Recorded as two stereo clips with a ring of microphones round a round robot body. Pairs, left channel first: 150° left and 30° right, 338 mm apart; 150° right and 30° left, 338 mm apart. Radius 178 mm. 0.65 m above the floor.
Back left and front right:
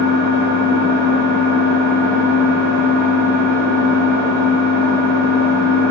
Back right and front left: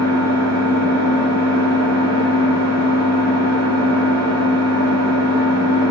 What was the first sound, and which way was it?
An engine running, 20° left.